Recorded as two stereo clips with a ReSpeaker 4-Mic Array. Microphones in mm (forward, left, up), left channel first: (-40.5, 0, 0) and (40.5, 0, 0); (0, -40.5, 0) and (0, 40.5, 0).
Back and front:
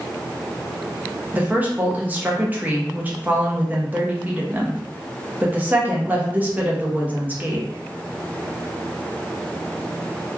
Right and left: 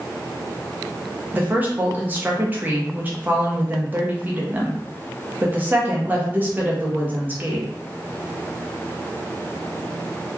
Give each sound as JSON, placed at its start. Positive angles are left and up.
{"t": 1.3, "sound": "a woman speaking", "azimuth_deg": 50, "distance_m": 0.6}